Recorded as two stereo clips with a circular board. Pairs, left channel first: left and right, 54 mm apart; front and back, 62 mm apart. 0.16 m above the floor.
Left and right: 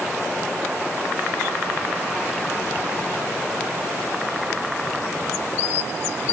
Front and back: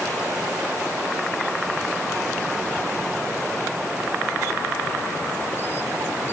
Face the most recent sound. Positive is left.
No sound to turn to.